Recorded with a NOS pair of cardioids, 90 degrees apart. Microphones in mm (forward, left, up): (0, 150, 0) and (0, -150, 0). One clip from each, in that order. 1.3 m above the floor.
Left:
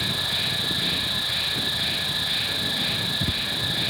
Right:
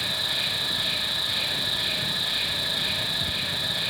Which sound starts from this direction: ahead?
An insect, at 0.0 s.